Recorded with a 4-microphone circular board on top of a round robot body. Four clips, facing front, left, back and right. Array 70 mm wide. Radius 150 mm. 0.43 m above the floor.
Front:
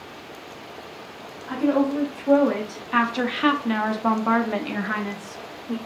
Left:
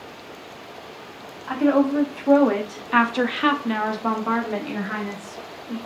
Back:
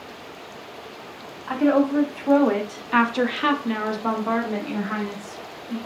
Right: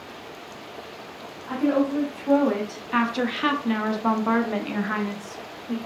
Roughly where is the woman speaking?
Behind left.